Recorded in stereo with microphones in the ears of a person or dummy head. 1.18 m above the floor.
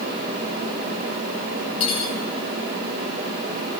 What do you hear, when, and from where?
1.8 s cutlery clinking: 30° left (ahead or behind), 8.5 m